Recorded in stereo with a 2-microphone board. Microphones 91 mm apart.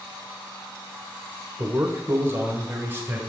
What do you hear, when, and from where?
1.6 s a man speaking: 35° right (ahead or behind), 1.0 m; by 3.2 s 25° right (ahead or behind), 2 m